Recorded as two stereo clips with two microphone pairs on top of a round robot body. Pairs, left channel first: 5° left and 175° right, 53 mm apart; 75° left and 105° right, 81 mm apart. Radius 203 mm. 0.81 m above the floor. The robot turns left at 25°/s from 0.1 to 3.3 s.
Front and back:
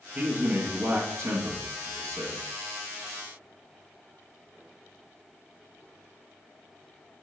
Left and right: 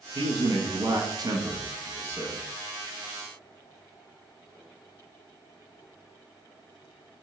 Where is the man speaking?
105° right, 1.3 m; by 2.4 s 165° right, 1.3 m.